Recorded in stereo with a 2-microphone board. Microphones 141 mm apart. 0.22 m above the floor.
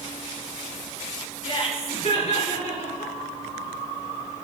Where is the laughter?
40° left (ahead or behind), 3 m; by 3.1 s 55° left (ahead or behind), 4.5 m.